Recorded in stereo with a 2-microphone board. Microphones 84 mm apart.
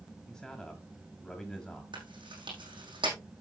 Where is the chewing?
75° right (ahead or behind), 5 m.